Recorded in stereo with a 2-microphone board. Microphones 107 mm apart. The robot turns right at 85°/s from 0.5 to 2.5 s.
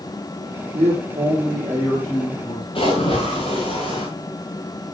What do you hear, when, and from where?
0.7 s a man speaking: 105° right, 7 m; by 2.6 s 45° left, 7 m
2.8 s a splash: 55° left (ahead or behind), 7 m